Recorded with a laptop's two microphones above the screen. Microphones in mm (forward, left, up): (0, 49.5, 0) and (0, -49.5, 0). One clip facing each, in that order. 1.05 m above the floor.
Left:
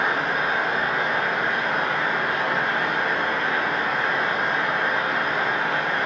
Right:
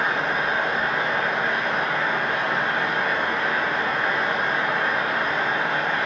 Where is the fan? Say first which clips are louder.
Even; centre (ahead or behind), 0.7 m.